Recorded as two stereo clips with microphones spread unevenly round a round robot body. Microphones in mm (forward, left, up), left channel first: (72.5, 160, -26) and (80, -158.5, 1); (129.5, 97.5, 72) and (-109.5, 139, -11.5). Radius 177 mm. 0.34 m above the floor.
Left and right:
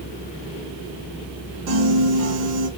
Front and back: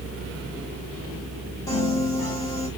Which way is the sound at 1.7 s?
105° right.